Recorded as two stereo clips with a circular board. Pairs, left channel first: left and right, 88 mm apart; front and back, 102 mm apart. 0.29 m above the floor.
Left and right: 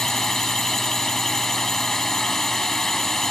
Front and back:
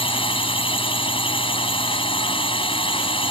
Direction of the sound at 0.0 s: 5° left.